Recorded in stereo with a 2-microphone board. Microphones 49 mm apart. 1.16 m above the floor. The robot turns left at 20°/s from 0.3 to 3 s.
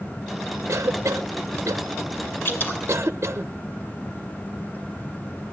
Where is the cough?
65° right (ahead or behind), 0.7 m; by 3.5 s 55° right (ahead or behind), 0.7 m.